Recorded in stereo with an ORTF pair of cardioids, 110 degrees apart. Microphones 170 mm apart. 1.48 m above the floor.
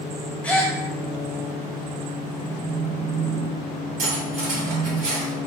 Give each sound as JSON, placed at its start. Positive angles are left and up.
{"t": 0.4, "sound": "a gasp", "azimuth_deg": 10, "distance_m": 0.7}
{"t": 2.4, "sound": "a phone buzzing", "azimuth_deg": 15, "distance_m": 0.5}
{"t": 4.0, "sound": "cutlery clinking", "azimuth_deg": -55, "distance_m": 1.9}